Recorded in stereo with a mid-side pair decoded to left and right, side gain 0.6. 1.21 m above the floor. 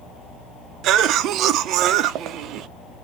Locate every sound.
0.8 s a cough: 60° right, 0.6 m